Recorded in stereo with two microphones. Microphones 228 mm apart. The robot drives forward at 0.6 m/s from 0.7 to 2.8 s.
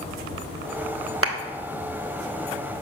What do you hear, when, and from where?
1.2 s a clap: 75° right (ahead or behind), 1.1 m